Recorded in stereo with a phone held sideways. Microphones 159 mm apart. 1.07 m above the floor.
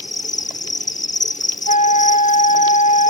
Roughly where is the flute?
Left.